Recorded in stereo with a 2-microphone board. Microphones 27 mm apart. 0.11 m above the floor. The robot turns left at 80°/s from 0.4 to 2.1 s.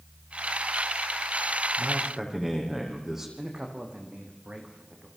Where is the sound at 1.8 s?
40° right (ahead or behind), 6.5 m; by 3.3 s 15° right (ahead or behind), 6.5 m.